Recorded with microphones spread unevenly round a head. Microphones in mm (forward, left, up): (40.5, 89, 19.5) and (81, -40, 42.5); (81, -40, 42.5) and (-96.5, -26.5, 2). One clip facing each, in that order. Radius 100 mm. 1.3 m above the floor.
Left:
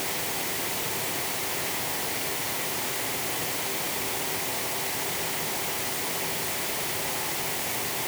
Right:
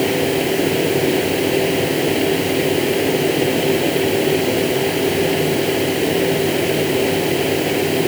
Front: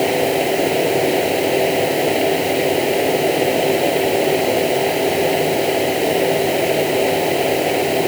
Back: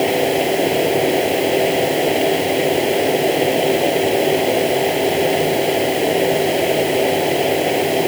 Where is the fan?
95° right.